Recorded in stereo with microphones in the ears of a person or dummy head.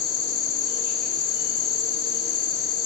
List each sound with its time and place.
0.0 s an insect: 50° left (ahead or behind), 1.9 m